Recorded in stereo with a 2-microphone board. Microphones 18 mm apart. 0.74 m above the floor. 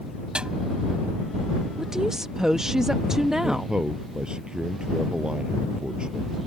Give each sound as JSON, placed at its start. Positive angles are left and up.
{"t": 0.3, "sound": "a snare drum", "side_deg": -80}
{"t": 1.8, "sound": "a woman speaking", "side_deg": -30}
{"t": 3.4, "sound": "a man speaking", "side_deg": -60}